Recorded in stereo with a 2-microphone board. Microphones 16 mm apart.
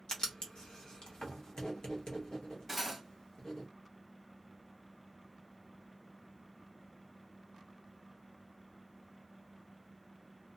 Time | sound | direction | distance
0.1 | writing | 50° left (ahead or behind) | 1.0 m
2.7 | cutlery clinking | 5° right (ahead or behind) | 1.1 m